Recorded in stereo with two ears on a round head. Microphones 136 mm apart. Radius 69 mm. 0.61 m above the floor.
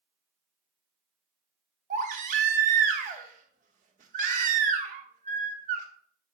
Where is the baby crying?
50° right (ahead or behind), 1.2 m.